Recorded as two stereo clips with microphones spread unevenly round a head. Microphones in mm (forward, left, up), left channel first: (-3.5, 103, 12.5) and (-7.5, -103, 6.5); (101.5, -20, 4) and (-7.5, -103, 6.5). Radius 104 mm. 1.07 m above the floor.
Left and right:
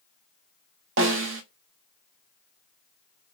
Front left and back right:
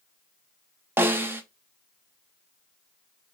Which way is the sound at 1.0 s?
70° right.